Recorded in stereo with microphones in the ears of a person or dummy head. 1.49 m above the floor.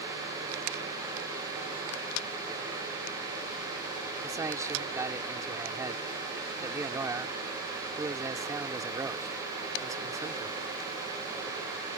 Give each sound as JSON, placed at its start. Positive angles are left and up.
{"t": 4.2, "sound": "a man speaking", "side_deg": -15}